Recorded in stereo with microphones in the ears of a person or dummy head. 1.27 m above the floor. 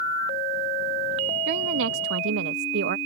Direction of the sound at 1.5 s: 70° right (ahead or behind).